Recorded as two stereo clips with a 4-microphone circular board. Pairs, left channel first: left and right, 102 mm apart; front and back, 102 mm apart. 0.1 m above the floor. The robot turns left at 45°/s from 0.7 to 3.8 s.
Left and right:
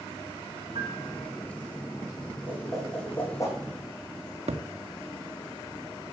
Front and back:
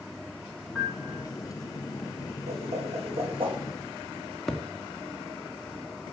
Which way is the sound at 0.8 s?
90° right.